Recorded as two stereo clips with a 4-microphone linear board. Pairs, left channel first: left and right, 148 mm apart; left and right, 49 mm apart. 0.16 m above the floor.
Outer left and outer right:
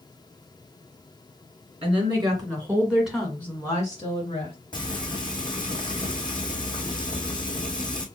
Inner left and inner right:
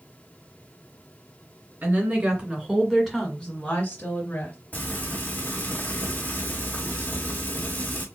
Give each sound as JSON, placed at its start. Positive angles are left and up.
{"t": 1.8, "sound": "a woman speaking", "side_deg": -40, "distance_m": 2.0}
{"t": 4.7, "sound": "frying", "side_deg": 30, "distance_m": 1.5}